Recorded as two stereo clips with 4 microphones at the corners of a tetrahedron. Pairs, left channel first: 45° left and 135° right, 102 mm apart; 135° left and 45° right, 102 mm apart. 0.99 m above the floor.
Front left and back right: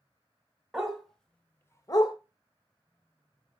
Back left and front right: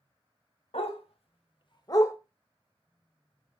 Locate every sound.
0.7 s a dog barking: 140° left, 1.6 m; by 2.1 s 70° left, 0.9 m